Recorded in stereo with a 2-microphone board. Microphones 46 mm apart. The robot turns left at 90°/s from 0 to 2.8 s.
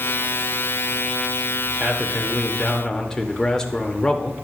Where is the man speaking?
115° right, 0.8 m; by 4.5 s 155° left, 0.8 m.